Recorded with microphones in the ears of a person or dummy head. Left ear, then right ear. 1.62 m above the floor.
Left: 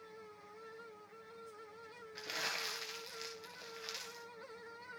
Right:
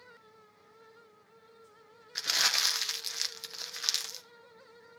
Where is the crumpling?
45° right (ahead or behind), 1.2 m.